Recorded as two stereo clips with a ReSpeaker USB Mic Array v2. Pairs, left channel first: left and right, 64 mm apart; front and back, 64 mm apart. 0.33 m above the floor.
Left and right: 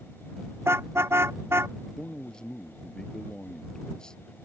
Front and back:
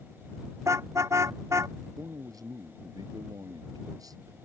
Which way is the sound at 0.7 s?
140° right.